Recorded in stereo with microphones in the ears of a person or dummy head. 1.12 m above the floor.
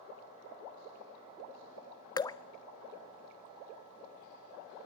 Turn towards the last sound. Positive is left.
turn(degrees=20)  # may be behind; listen again after turning